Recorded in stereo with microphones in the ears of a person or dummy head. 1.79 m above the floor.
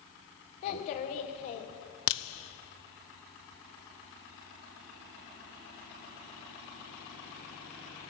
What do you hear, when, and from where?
0.6 s a child speaking: 40° left (ahead or behind), 0.9 m
2.1 s a crack: 60° left (ahead or behind), 0.5 m